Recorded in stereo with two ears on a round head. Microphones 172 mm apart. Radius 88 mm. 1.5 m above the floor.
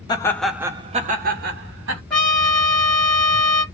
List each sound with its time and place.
0.1 s laughter: 20° left (ahead or behind), 0.7 m; by 2.0 s 70° right (ahead or behind), 1.3 m
2.1 s a trumpet: 5° left (ahead or behind), 1.2 m